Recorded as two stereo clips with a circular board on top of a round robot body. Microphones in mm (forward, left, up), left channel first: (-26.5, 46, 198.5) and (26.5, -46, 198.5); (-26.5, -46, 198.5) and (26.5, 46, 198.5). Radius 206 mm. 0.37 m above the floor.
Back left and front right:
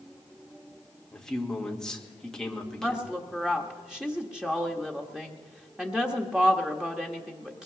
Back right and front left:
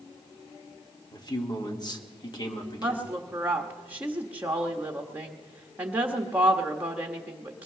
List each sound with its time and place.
1.1 s a man speaking: 155° right, 1.7 m
2.8 s a woman speaking: 10° left, 1.3 m